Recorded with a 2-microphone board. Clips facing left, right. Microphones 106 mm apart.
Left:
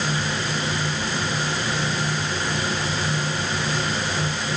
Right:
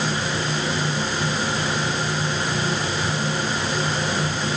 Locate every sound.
Only background noise.